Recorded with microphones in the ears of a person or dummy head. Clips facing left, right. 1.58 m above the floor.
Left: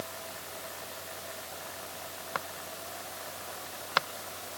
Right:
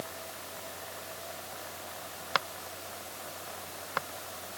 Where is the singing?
I don't hear singing.